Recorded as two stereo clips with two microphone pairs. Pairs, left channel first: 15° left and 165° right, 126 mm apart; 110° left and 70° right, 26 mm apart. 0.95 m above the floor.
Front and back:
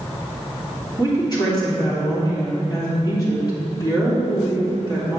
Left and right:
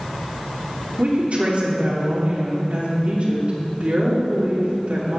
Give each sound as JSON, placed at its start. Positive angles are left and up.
{"t": 1.0, "sound": "a woman speaking", "azimuth_deg": -40, "distance_m": 2.5}